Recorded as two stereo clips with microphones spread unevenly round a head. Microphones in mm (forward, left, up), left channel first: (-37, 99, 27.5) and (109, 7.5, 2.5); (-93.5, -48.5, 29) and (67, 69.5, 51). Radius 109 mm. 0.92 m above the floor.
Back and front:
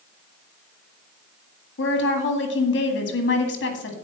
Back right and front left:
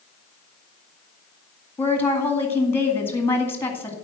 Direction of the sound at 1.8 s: 140° left.